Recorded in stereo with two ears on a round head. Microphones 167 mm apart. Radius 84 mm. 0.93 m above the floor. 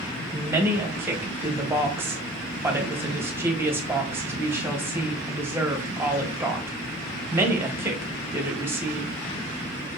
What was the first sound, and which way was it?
A woman speaking, 10° right (ahead or behind).